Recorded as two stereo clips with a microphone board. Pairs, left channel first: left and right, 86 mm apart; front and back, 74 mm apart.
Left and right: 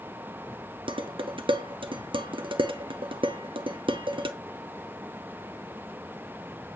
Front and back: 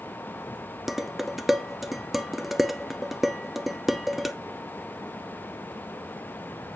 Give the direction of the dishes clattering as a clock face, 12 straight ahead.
3 o'clock.